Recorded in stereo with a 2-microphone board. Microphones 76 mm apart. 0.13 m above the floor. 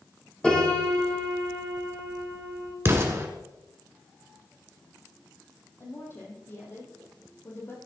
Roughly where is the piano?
Centre.